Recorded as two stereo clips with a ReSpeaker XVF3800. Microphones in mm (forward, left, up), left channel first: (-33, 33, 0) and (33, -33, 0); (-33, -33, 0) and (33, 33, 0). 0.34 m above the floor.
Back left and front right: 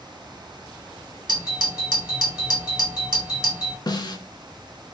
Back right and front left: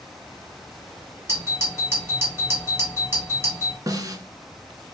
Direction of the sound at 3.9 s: 95° left.